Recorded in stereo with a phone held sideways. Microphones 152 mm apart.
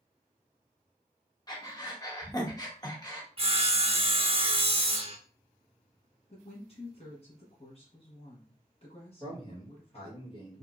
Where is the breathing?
25° left (ahead or behind), 0.8 m.